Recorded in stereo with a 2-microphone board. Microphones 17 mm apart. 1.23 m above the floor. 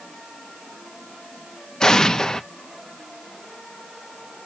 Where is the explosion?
40° left (ahead or behind), 0.7 m.